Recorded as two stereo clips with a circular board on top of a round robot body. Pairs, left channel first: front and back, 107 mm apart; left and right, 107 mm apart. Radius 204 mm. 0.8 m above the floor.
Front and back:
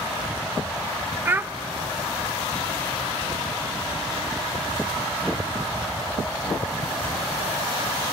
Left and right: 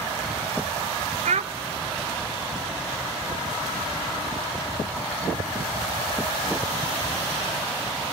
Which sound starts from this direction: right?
A child speaking, at 1.2 s.